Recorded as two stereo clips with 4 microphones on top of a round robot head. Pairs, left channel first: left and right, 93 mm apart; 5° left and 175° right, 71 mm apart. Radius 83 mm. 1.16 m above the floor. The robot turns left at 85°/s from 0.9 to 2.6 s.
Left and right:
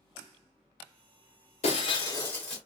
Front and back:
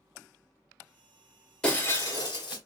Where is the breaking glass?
90° left, 1.9 m; by 2.6 s 10° left, 1.9 m.